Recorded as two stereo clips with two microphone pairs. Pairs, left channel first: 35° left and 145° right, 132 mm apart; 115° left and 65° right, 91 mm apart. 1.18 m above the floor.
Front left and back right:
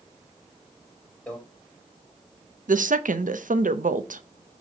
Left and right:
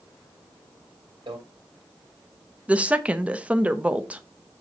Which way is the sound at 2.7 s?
140° right.